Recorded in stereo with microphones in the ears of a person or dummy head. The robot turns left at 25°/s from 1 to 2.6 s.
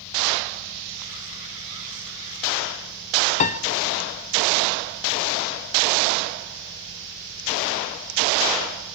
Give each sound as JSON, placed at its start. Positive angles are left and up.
{"t": 3.4, "sound": "a piano", "side_deg": 35, "distance_m": 1.1}